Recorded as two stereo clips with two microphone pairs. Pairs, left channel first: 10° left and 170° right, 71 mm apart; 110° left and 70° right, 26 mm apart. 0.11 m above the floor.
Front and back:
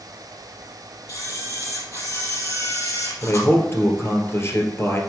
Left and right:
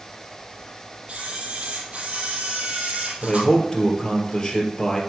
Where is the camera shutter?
20° right, 2.5 m.